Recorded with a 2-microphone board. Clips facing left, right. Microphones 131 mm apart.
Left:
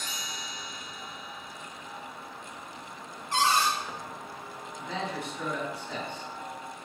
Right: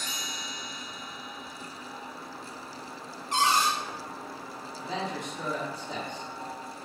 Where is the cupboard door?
20° right (ahead or behind), 0.7 m.